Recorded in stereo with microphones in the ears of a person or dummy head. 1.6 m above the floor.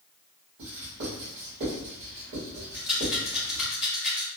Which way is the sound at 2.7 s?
Centre (ahead or behind).